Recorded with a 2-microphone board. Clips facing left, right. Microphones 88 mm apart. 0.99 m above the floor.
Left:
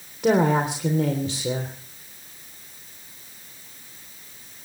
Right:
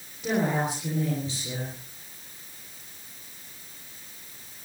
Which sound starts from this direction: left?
A woman speaking, at 0.2 s.